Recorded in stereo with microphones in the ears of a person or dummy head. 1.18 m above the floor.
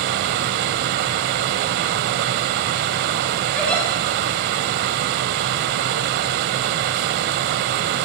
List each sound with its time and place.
0.0 s a fan: 55° right (ahead or behind), 1.5 m
3.5 s a giggle: 5° left (ahead or behind), 7 m